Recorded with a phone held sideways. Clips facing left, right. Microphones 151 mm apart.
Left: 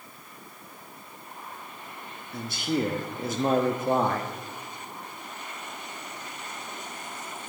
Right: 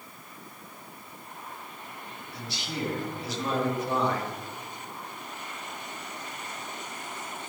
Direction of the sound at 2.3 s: 50° left (ahead or behind).